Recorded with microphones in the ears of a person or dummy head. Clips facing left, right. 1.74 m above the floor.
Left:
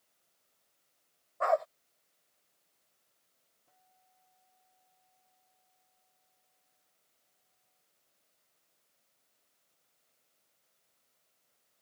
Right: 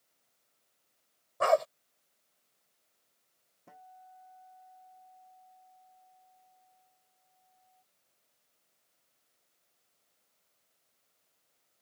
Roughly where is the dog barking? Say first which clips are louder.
Right 3 dB; right.